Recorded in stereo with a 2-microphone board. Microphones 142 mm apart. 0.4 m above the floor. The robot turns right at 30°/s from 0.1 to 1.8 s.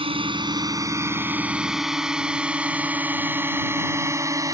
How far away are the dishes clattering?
I don't hear dishes clattering.